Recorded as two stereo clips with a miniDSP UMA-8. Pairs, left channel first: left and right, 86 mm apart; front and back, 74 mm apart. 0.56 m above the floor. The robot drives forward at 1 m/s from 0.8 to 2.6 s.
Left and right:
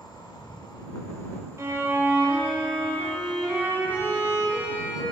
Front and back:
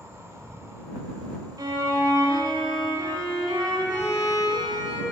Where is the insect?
125° left, 0.8 m; by 5.1 s 165° left, 2.5 m.